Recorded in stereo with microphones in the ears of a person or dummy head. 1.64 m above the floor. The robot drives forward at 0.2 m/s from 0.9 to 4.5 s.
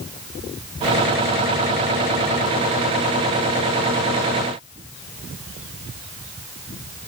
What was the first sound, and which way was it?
Only background noise.